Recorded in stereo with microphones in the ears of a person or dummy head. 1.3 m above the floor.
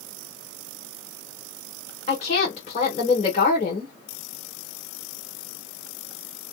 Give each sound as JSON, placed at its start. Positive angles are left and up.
{"t": 2.1, "sound": "a woman speaking", "side_deg": 40, "distance_m": 1.0}